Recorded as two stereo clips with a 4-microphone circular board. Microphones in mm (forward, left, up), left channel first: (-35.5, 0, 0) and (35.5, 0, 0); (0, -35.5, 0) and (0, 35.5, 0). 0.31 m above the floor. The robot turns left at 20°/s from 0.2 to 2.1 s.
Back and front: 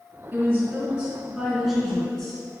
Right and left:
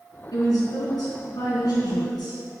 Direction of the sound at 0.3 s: 60° right.